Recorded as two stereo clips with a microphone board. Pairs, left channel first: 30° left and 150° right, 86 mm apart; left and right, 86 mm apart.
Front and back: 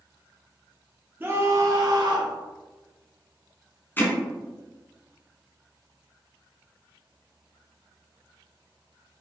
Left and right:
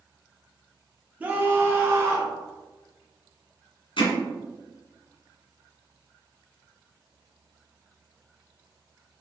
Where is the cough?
I don't hear a cough.